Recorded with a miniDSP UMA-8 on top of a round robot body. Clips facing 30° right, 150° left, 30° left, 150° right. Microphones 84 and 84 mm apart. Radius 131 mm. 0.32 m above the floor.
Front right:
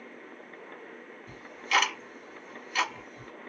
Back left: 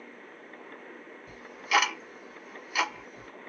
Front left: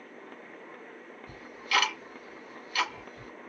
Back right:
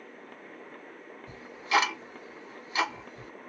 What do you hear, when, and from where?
1.3 s ticking: 135° right, 1.3 m